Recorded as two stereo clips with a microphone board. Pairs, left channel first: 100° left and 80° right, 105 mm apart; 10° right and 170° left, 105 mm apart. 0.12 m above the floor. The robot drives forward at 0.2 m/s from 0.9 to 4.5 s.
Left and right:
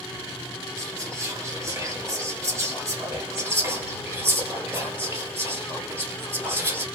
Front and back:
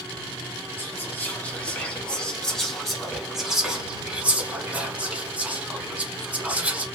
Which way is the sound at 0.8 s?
60° right.